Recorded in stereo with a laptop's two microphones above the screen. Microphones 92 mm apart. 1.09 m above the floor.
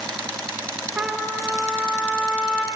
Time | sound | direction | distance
1.0 | a trumpet | 15° right (ahead or behind) | 0.9 m